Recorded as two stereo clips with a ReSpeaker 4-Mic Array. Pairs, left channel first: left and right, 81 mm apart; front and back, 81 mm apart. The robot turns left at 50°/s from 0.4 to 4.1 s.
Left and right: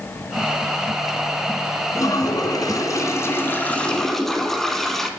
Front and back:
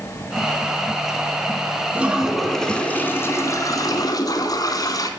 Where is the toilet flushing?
110° left, 0.8 m; by 5.1 s 5° left, 0.8 m.